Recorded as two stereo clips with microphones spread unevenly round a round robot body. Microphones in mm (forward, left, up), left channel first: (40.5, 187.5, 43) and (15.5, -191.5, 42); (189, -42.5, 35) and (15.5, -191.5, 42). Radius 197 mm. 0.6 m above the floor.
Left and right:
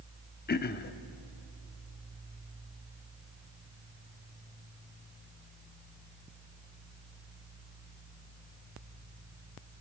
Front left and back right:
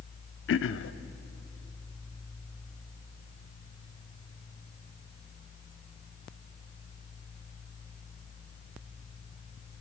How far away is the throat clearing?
About 0.8 m.